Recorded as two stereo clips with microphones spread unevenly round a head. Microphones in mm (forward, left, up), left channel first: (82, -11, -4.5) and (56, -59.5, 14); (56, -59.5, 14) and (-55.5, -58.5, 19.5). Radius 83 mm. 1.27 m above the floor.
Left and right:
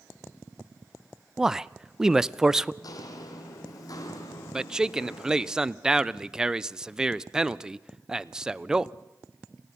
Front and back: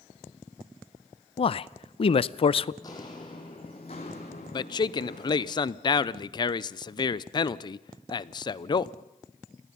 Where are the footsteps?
65° left, 2 m; by 5.5 s 35° left, 3 m.